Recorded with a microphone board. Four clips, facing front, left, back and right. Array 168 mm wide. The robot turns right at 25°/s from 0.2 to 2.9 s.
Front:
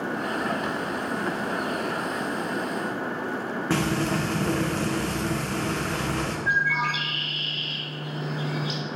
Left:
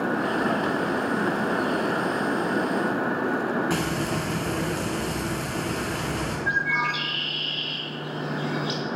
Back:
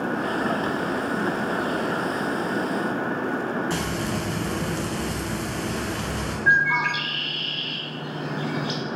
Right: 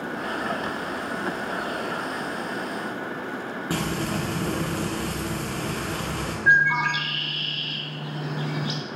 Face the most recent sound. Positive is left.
turn(degrees=-135)